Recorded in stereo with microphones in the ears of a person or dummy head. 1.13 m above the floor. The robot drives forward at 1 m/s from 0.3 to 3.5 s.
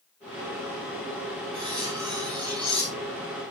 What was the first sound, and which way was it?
Cutlery clinking, 25° right (ahead or behind).